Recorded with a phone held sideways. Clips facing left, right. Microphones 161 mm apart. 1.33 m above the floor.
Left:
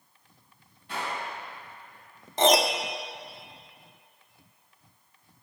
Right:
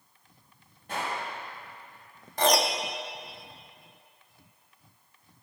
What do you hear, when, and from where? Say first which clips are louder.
0.9 s a gunshot: right 1 dB; 50° right (ahead or behind), 5.5 m
2.4 s a piano: left 3 dB; 25° left (ahead or behind), 0.8 m